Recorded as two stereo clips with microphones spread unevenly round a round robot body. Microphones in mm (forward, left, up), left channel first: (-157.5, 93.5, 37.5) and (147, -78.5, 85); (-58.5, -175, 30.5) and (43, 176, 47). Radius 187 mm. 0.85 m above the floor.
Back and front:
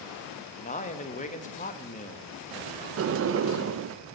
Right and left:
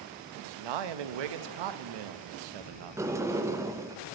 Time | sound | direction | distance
0.6 | a man speaking | 85° left | 0.8 m
3.0 | a sliding door | 5° right | 0.5 m